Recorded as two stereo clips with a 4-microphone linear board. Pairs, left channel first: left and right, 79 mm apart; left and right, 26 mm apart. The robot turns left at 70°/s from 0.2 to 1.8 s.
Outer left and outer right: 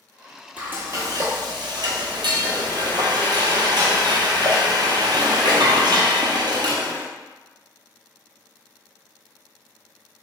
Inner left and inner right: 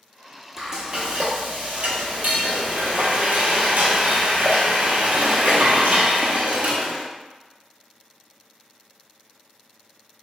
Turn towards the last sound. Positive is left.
turn(degrees=-105)